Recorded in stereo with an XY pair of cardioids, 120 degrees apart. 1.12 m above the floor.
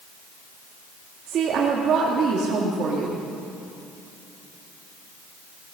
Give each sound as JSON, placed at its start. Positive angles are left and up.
{"t": 1.3, "sound": "a woman speaking", "azimuth_deg": -55, "distance_m": 1.6}